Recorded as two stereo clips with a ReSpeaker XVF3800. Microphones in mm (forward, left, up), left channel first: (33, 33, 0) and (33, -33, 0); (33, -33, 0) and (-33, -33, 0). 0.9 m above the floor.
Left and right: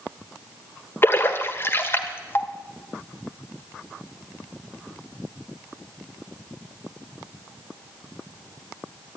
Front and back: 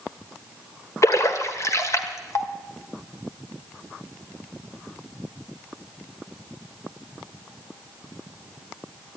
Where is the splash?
35° left, 1.3 m.